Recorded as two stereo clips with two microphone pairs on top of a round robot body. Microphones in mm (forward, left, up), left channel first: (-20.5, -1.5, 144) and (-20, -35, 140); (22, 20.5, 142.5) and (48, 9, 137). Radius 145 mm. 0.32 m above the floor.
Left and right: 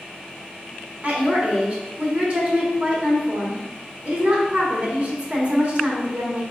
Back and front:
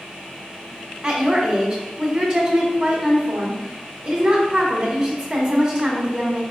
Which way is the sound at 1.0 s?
75° right.